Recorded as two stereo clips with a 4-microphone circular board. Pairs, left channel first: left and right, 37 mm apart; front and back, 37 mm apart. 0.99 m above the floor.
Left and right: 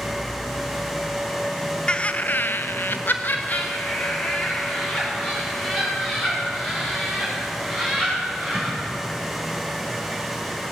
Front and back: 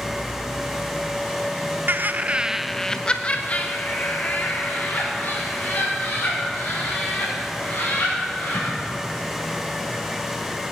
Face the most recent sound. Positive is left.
turn(degrees=25)